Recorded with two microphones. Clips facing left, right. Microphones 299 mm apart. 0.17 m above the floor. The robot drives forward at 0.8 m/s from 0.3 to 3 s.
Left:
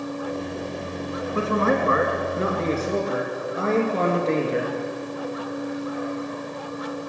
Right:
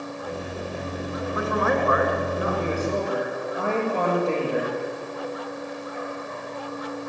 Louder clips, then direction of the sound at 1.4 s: Left 3 dB; 35° left (ahead or behind).